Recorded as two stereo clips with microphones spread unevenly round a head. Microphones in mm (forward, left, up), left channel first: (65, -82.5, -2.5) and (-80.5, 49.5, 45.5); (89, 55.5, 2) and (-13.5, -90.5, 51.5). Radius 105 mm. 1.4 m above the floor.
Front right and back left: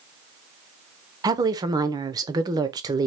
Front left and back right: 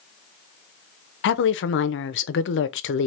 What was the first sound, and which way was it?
A woman speaking, 65° left.